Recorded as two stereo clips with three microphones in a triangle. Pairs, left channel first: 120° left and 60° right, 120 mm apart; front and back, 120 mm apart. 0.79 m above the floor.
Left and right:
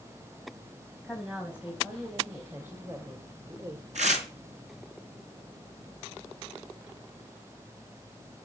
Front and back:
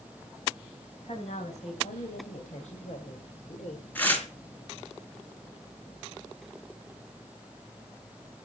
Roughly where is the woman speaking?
Ahead.